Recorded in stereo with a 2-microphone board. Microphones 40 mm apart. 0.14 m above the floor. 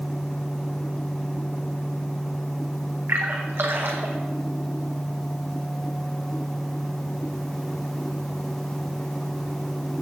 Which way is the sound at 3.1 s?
75° right (ahead or behind).